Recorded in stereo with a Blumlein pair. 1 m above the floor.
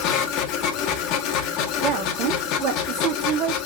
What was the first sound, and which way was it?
A machine running, 40° left.